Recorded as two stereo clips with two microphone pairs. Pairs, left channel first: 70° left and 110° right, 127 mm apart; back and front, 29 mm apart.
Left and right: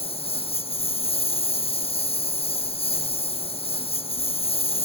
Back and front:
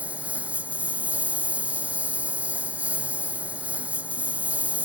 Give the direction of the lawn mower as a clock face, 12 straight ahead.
11 o'clock.